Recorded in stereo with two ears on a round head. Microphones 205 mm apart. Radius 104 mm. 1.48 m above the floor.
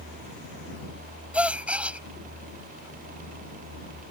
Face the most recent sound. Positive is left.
turn(degrees=-5)  # may be behind; listen again after turning